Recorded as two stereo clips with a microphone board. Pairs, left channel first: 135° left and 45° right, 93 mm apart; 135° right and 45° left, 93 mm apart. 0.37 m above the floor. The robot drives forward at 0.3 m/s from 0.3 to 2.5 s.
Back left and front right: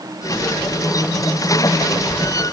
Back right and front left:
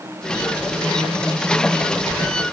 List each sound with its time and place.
Only background noise.